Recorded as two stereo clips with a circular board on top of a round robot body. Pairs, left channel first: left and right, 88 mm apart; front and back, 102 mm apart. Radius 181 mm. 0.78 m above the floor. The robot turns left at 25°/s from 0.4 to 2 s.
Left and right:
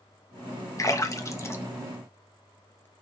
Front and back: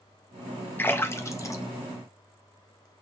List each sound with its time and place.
0.8 s a splash: 60° left, 1.0 m; by 2.9 s 30° left, 1.0 m